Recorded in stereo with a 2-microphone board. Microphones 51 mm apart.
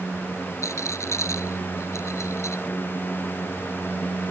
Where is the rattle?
65° left (ahead or behind).